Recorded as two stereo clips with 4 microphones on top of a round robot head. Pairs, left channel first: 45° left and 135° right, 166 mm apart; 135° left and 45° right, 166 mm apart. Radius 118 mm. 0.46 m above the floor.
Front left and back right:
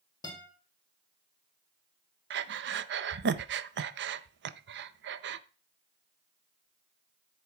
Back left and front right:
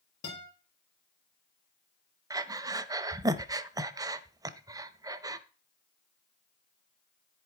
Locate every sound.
0.2 s a guitar: 115° left, 7 m
2.3 s breathing: 115° right, 0.7 m